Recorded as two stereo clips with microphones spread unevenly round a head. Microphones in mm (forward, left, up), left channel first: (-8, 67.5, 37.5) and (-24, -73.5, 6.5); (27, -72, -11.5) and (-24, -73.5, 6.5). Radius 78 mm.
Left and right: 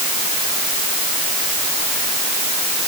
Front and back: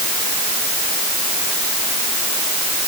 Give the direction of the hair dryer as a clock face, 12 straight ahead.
I don't hear a hair dryer.